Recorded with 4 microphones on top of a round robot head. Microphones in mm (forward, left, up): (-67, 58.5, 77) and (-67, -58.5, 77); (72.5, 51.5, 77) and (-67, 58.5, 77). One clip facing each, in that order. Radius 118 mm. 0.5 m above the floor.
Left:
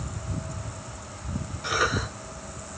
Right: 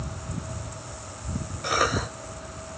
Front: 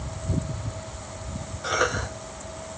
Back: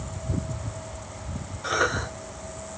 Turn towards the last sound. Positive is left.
turn(degrees=-85)